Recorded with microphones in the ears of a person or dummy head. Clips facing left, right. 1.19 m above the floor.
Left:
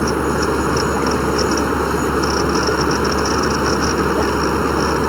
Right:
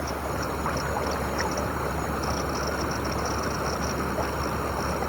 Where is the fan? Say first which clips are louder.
Left 13 dB; 80° left.